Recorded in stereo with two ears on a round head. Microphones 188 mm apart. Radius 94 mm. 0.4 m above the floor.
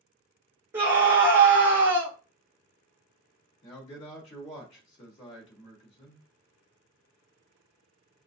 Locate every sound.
0.7 s a scream: 10° right (ahead or behind), 1.2 m
3.6 s a man speaking: 30° left (ahead or behind), 1.1 m